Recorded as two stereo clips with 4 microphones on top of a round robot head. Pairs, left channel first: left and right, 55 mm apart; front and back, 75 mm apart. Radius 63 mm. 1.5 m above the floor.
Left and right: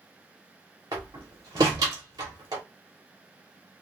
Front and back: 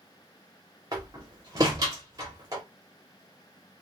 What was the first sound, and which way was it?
A door slam, 125° right.